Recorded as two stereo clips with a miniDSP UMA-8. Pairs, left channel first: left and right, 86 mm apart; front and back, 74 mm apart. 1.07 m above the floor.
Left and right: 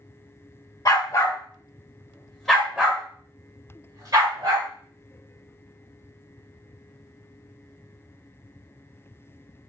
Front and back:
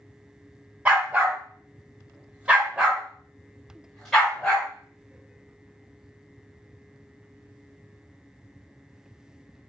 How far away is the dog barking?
About 1.3 m.